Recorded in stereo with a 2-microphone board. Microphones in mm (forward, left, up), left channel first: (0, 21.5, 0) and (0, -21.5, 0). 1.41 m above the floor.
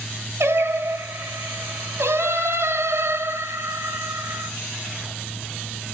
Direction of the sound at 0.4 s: 75° right (ahead or behind).